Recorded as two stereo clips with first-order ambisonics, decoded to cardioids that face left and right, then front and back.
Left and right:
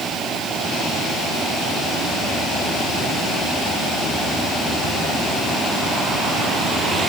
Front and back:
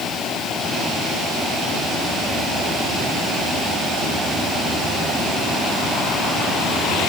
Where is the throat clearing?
No throat clearing in this recording.